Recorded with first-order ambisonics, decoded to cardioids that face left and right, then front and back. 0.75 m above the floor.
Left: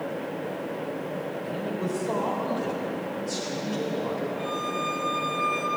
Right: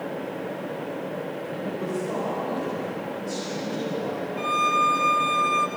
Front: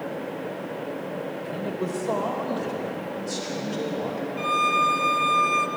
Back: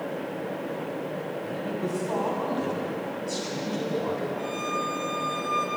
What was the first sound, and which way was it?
A man speaking, 5° left.